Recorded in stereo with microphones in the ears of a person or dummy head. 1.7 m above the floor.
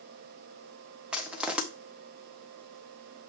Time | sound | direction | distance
1.1 | crushing | centre (ahead or behind) | 0.7 m